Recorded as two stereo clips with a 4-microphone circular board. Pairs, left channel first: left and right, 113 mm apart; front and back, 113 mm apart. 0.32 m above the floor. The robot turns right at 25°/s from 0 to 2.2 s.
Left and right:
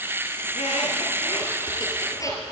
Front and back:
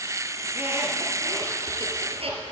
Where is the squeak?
105° left, 1.7 m; by 2.4 s 150° left, 1.7 m.